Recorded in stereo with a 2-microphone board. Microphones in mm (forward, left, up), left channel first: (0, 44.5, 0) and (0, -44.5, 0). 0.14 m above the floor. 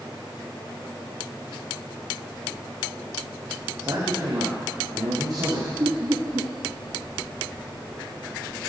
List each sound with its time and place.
3.8 s a man speaking: 45° right (ahead or behind), 5 m
5.8 s laughter: 45° right (ahead or behind), 1.8 m